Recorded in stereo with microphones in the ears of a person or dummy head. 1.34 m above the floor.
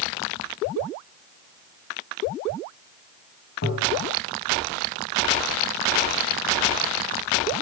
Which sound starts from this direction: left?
Tapping, at 3.6 s.